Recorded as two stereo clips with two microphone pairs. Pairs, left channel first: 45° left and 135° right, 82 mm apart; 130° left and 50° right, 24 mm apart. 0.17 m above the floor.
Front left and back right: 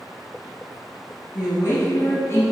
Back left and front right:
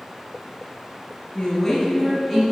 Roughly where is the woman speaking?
Ahead left.